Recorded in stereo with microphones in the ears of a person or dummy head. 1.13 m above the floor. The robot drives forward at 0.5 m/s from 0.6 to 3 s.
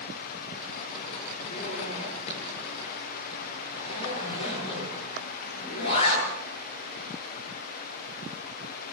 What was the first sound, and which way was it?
A zipper, 40° left (ahead or behind).